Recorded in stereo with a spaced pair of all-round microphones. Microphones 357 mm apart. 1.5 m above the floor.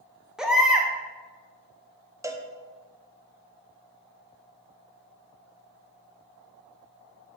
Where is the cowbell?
10° right (ahead or behind), 0.5 m.